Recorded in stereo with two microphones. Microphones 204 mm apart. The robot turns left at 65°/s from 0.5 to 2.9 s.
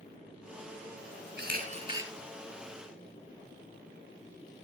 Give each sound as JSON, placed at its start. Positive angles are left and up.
{"t": 1.4, "sound": "a camera shutter", "azimuth_deg": -125, "distance_m": 6.0}